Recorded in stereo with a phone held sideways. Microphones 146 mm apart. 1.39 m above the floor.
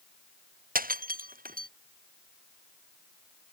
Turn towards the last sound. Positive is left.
turn(degrees=-80)